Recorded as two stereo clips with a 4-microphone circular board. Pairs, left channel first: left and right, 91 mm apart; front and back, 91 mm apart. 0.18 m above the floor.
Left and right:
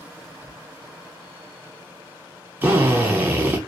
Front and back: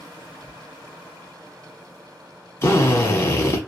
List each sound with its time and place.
0.2 s whispering: 115° left, 1.1 m
2.6 s a drill: 35° right, 0.7 m